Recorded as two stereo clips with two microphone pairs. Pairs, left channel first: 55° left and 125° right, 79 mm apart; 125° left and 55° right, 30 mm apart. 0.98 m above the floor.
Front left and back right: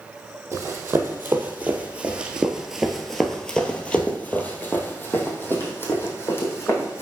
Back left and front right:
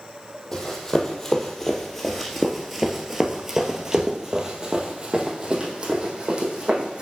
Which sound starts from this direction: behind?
Running footsteps, at 0.5 s.